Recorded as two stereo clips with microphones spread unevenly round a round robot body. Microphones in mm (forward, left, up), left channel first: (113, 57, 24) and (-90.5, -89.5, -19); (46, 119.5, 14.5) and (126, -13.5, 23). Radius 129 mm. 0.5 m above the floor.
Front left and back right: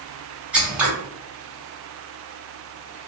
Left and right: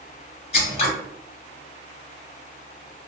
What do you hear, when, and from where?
0.5 s scissors: 140° left, 1.0 m